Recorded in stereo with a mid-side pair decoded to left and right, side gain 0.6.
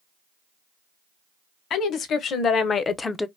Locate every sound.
1.7 s a woman speaking: 55° left, 1.5 m; by 3.3 s 5° left, 0.5 m